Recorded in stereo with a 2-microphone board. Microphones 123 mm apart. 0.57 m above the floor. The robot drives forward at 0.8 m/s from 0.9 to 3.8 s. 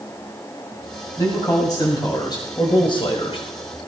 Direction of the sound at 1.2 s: 30° left (ahead or behind).